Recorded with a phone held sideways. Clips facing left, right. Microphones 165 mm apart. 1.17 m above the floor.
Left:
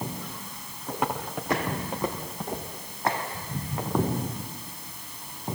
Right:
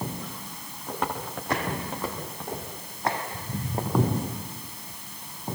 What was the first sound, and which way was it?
Footsteps, 5° left (ahead or behind).